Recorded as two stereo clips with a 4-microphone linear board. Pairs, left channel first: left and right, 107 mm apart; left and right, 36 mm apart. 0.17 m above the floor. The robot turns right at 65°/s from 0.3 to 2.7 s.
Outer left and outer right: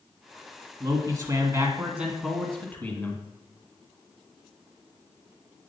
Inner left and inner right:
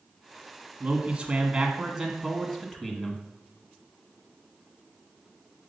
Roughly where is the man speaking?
Right.